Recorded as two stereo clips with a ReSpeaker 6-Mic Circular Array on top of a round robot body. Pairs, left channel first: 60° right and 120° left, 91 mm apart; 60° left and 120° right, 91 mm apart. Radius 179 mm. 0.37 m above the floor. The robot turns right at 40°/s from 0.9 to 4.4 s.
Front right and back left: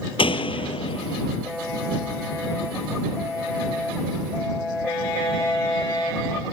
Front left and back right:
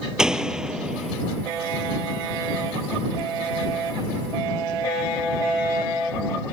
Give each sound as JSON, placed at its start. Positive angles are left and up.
{"t": 0.2, "sound": "a door slam", "azimuth_deg": -35}